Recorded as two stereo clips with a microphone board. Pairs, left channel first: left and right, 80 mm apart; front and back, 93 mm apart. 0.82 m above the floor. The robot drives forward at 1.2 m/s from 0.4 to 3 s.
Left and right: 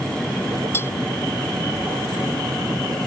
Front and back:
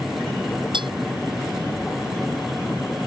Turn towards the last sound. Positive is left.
turn(degrees=155)